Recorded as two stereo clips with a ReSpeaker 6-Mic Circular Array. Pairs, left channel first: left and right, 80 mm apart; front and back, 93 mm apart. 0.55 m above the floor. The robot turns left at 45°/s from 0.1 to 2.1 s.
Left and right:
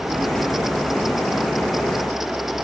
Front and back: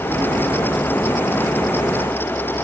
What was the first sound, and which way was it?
Only background noise.